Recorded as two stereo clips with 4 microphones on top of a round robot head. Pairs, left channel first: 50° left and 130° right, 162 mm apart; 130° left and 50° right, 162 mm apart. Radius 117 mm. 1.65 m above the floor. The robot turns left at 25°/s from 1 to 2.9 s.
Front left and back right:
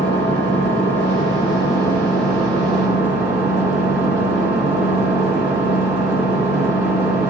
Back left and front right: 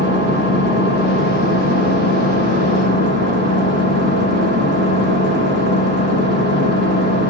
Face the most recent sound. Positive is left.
turn(degrees=-55)